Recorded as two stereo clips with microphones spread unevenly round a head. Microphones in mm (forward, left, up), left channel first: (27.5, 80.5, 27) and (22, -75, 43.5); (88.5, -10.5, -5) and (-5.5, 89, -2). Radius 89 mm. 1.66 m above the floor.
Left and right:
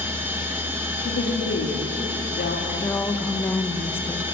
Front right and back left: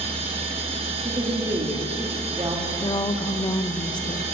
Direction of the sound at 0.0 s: 170° right.